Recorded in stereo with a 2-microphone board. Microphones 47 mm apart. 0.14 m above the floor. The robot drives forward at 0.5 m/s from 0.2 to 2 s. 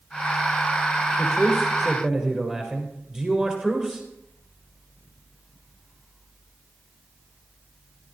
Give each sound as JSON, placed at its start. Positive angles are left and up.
{"t": 1.2, "sound": "a man speaking", "side_deg": -15, "distance_m": 4.0}